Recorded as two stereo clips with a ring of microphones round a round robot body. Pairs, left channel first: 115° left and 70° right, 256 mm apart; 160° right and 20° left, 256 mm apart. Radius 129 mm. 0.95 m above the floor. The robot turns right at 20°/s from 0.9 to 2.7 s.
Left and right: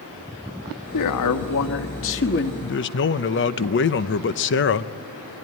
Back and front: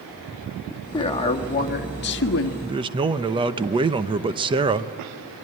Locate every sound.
0.9 s a man speaking: 130° left, 1.6 m; by 2.5 s 160° left, 1.6 m
2.6 s a man speaking: 85° left, 0.8 m; by 4.9 s 90° left, 0.8 m